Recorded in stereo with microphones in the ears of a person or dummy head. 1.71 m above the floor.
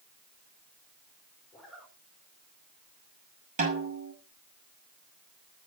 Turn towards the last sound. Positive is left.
turn(degrees=-40)  # may be behind; listen again after turning